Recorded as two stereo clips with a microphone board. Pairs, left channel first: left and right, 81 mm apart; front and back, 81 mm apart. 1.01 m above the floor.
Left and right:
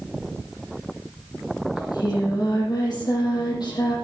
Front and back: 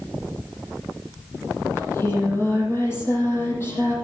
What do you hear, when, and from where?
1.8 s singing: 65° left, 8.5 m